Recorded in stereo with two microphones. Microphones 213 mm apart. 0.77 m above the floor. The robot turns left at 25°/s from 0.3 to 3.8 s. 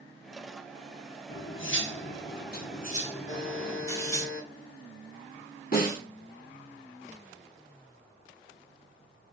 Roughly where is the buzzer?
Left.